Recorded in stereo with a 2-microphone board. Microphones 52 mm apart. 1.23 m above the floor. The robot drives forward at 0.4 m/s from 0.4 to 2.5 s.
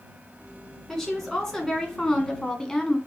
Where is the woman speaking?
5° left (ahead or behind), 1.4 m.